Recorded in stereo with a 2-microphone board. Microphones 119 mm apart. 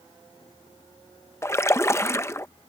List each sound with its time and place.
1.4 s a splash: 20° left (ahead or behind)